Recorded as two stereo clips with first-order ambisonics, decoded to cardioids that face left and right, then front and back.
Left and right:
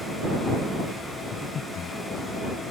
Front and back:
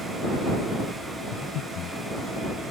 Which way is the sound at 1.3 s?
35° left.